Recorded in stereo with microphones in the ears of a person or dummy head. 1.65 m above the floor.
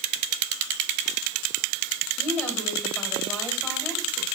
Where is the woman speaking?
10° left (ahead or behind), 3 m.